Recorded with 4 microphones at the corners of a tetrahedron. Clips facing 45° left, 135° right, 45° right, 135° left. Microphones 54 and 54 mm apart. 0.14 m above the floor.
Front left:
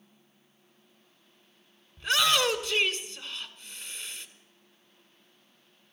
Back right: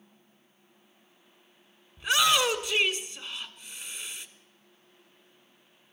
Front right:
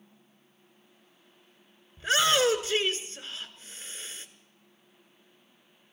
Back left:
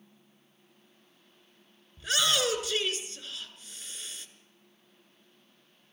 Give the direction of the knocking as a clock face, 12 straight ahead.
I don't hear knocking.